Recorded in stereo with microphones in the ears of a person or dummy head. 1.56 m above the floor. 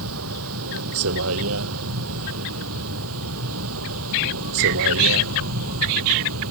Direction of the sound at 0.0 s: 85° right.